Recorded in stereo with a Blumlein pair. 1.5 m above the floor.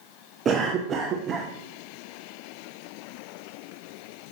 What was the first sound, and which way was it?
A cough, 25° right.